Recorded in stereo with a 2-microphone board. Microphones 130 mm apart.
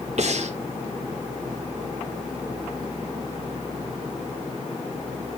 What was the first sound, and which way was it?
Breathing, 60° right (ahead or behind).